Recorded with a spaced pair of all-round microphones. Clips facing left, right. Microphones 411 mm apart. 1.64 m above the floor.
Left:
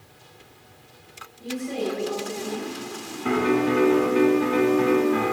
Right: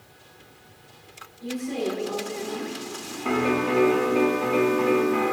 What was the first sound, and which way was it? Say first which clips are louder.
A woman speaking: even; 65° left (ahead or behind).